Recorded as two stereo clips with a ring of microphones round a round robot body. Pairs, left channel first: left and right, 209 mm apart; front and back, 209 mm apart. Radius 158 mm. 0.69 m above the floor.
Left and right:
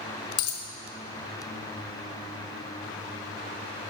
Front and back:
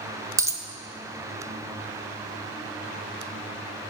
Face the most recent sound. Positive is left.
turn(degrees=105)